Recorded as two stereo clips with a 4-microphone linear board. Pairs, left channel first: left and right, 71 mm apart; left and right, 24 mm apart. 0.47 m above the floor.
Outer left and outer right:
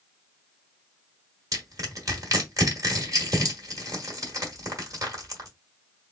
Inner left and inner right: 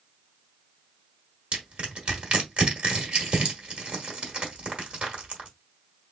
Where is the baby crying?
I don't hear a baby crying.